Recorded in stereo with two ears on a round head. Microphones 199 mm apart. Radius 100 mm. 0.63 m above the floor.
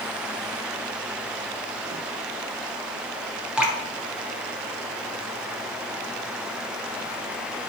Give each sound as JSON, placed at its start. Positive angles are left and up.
{"t": 3.6, "sound": "dripping", "side_deg": -5, "distance_m": 0.9}